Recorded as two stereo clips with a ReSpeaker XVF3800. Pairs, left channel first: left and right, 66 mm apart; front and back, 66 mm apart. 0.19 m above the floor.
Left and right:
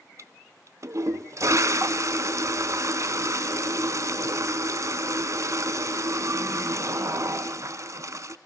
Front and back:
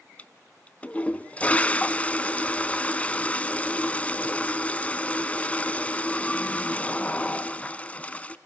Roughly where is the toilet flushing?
Ahead right.